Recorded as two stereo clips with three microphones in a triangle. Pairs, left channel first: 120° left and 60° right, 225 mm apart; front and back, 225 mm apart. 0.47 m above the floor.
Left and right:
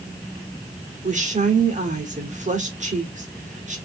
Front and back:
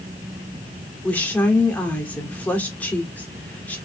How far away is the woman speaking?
About 1.3 m.